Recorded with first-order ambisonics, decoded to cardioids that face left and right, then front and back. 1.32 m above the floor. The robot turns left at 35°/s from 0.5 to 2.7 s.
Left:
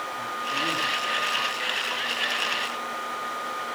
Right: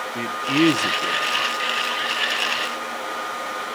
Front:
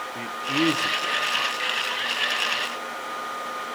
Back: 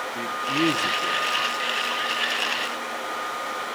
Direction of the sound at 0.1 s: 90° right.